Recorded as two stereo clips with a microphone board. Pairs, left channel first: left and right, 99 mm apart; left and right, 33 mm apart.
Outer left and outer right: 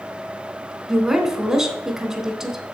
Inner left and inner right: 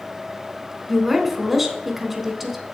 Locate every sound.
0.9 s a woman speaking: 5° right (ahead or behind), 1.0 m